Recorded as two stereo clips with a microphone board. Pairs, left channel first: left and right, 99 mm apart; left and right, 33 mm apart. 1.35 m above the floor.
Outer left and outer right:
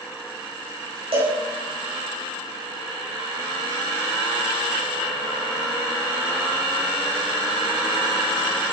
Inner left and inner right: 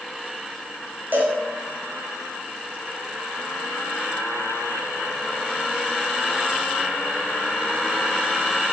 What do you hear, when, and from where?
1.1 s a cowbell: 70° right (ahead or behind), 5 m